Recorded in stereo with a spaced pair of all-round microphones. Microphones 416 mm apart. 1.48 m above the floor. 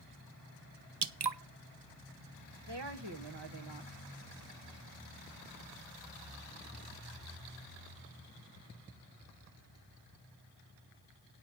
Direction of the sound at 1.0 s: 70° right (ahead or behind).